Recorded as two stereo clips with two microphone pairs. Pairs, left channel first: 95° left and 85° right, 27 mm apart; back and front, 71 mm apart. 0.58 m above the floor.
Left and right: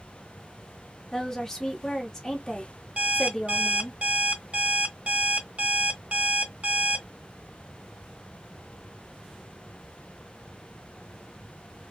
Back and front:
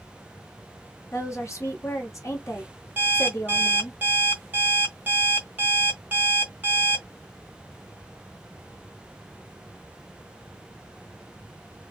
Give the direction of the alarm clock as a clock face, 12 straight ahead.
2 o'clock.